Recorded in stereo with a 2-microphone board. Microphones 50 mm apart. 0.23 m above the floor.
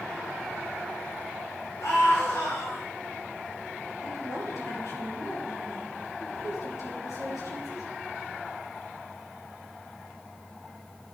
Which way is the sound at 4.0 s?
75° left (ahead or behind).